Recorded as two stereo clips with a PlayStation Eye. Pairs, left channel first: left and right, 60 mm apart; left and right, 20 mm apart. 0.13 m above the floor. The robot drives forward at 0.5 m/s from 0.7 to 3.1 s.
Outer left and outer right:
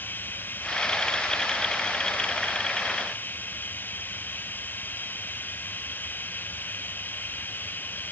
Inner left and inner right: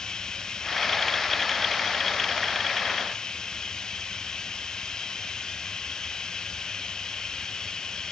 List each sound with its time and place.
0.0 s running water: 35° left (ahead or behind)